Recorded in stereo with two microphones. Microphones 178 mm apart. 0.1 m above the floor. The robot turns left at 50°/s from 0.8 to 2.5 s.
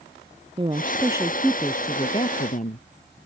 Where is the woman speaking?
145° right; by 3.3 s 130° left.